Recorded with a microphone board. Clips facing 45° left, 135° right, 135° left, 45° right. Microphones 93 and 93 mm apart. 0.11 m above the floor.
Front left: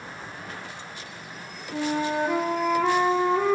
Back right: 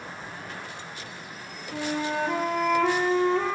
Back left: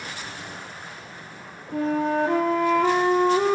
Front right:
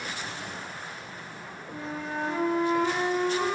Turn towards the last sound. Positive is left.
turn(degrees=125)